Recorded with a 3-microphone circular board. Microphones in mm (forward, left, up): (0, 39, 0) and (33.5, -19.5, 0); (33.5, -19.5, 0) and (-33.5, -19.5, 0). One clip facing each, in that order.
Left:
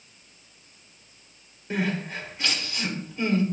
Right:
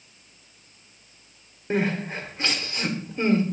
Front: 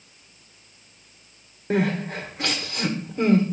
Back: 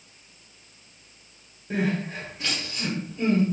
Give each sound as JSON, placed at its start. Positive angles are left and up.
{"t": 1.7, "sound": "crying", "azimuth_deg": 0, "distance_m": 1.4}